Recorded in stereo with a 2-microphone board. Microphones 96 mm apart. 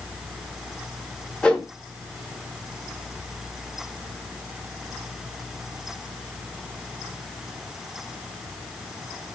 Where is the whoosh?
10° left (ahead or behind), 0.6 m.